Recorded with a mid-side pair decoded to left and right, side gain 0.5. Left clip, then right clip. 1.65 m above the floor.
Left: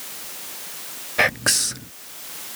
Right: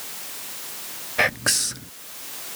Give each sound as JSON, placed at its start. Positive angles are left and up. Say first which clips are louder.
{"t": 1.2, "sound": "whispering", "louder": "left 2 dB", "azimuth_deg": 10}